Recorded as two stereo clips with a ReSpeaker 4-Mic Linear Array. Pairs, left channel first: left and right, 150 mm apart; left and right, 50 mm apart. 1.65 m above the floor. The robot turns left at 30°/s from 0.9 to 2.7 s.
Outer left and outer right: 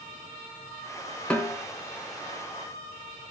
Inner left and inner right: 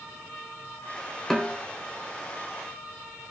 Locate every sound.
1.3 s a snare drum: 10° left (ahead or behind), 4 m; by 1.6 s centre (ahead or behind), 4 m